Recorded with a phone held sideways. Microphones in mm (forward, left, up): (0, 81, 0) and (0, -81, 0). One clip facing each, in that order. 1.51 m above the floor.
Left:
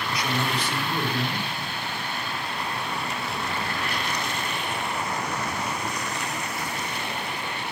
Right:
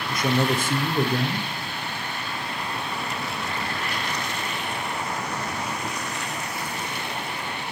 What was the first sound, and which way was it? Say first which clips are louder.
A man speaking: right 6 dB; 50° right (ahead or behind).